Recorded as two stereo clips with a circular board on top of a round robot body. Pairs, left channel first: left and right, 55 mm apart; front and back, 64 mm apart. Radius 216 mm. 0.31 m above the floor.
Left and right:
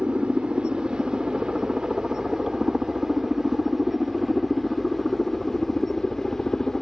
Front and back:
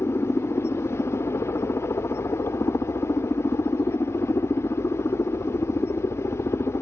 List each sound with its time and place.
0.0 s a helicopter: 25° right; by 6.8 s 10° left